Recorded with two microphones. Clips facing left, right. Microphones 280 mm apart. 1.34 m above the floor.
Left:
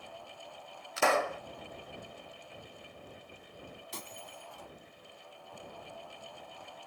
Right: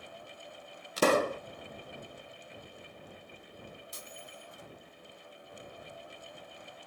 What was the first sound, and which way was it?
A pop, 40° right (ahead or behind).